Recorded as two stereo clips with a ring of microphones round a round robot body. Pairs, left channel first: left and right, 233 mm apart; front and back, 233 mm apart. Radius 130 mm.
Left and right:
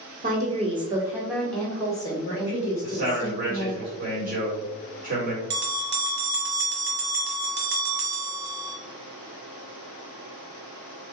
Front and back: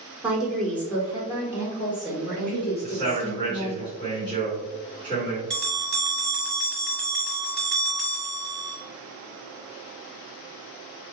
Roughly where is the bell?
Right.